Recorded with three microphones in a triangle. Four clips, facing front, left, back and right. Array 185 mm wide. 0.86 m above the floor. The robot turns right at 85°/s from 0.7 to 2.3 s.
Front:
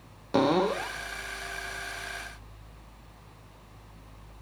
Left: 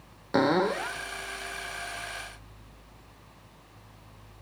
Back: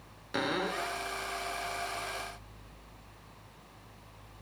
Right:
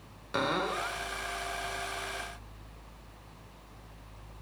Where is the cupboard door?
35° left, 1.3 m; by 1.0 s 60° left, 1.3 m.